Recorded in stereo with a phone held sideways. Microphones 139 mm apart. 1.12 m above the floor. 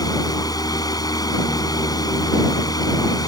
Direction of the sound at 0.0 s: 30° left (ahead or behind).